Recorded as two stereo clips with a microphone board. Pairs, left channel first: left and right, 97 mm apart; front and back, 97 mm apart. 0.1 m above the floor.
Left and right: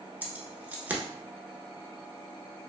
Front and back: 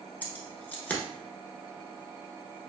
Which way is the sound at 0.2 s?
45° right.